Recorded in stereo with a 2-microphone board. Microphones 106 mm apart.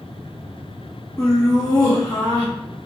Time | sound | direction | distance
1.2 | laughter | 20° left (ahead or behind) | 0.8 m